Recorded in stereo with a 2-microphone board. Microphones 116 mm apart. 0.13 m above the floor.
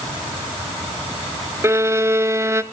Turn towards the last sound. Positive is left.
turn(degrees=-25)  # may be behind; listen again after turning